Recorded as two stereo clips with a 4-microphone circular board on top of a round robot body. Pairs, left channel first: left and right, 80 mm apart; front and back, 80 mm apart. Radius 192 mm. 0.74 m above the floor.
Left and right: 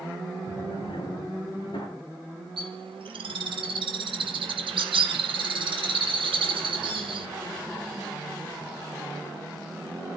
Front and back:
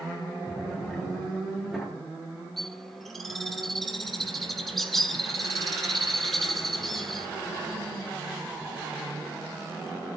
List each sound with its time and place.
0.5 s a drawer: 95° left, 8.5 m
2.6 s a bird: 90° right, 2.5 m